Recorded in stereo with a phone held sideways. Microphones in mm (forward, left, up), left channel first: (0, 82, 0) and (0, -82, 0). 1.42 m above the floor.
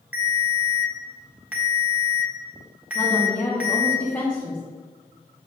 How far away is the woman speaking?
About 2 m.